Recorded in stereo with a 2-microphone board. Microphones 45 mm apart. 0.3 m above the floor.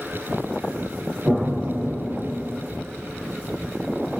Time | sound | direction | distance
1.2 | an explosion | 40° right (ahead or behind) | 7.5 m